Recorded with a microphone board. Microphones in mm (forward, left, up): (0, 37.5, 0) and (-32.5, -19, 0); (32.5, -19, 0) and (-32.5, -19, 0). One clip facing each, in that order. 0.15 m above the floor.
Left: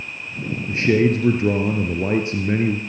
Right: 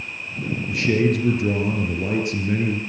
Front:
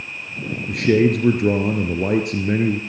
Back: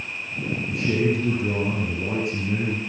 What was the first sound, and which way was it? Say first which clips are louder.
A man speaking: left 3 dB, front 7 dB; 5° left.